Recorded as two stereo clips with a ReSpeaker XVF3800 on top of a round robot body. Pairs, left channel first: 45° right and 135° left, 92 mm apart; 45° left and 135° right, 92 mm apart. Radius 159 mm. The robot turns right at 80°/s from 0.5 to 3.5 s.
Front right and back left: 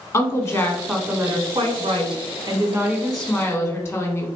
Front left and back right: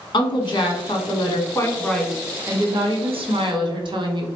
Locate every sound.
0.1 s a woman speaking: 10° left, 1.3 m; by 4.3 s 110° right, 1.3 m